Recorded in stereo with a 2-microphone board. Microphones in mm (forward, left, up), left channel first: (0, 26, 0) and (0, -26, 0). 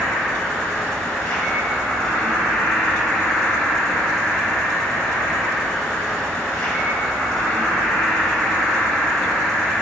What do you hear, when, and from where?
0.0 s an insect: 25° left (ahead or behind), 1.5 m